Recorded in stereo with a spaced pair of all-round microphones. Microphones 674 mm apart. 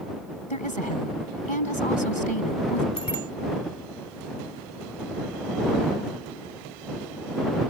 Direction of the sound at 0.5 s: 45° left (ahead or behind).